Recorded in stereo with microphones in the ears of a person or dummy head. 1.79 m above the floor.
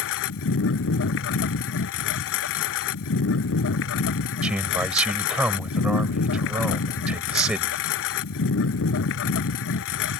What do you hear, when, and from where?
0.0 s a lawn mower: 65° left (ahead or behind)
4.4 s a man speaking: 5° right (ahead or behind)